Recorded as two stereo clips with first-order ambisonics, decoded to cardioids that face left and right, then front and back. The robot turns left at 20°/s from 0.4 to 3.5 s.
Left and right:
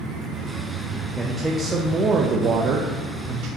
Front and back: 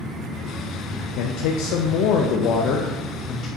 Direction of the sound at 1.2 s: 10° right.